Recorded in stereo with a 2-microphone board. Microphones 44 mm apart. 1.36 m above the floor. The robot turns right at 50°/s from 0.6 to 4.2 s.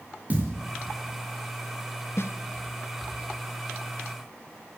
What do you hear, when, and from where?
0.3 s a thud: 30° right (ahead or behind), 6.5 m
2.2 s a snare drum: 60° left (ahead or behind), 1.2 m; by 2.3 s 65° left (ahead or behind), 1.2 m